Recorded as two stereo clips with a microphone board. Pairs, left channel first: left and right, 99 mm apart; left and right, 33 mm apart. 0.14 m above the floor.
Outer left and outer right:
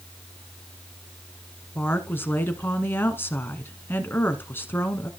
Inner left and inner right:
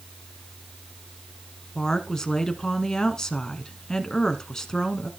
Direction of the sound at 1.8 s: 20° left (ahead or behind).